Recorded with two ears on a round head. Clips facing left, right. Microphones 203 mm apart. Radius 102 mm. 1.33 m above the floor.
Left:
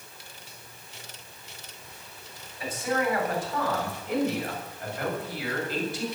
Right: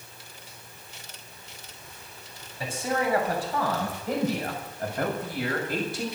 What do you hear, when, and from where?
2.6 s a man speaking: 25° right (ahead or behind), 7.5 m; by 6.0 s 45° right (ahead or behind), 6.5 m